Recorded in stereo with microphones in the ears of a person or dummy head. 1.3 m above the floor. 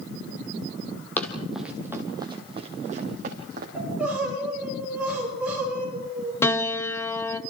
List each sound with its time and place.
1.2 s running footsteps: 10° left (ahead or behind), 2.5 m; by 3.6 s 50° right (ahead or behind), 4 m
3.8 s crying: 10° right (ahead or behind), 8 m
6.4 s a piano: 10° left (ahead or behind), 0.9 m